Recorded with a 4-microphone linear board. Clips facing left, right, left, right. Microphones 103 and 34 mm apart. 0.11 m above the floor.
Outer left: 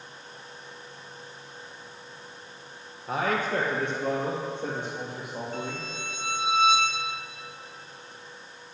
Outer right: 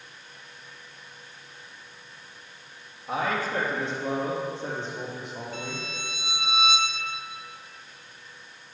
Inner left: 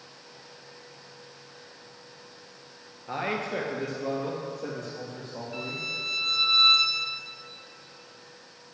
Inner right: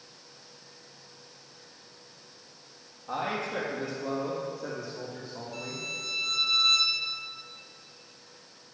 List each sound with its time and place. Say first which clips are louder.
3.1 s a man speaking: outer left 1 dB, inner left 1 dB; 50° left (ahead or behind), 2.0 m; by 5.8 s 70° left (ahead or behind), 4 m
5.5 s a violin: outer left 1 dB, inner left 4 dB; 40° left (ahead or behind), 1.0 m